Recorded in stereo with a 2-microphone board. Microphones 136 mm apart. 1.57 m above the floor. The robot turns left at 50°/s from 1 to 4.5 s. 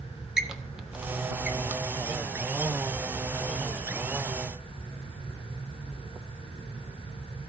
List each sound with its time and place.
0.4 s a squeak: 5° right (ahead or behind), 1.1 m; by 1.8 s 15° right (ahead or behind), 1.1 m